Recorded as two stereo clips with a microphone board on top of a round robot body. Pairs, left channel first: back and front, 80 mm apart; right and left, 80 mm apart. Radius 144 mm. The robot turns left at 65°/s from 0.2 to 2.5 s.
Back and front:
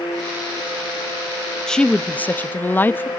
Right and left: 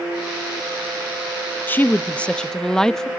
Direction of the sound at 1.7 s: 110° right.